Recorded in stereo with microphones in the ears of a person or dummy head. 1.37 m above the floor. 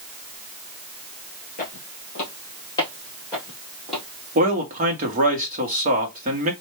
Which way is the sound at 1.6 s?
40° left (ahead or behind).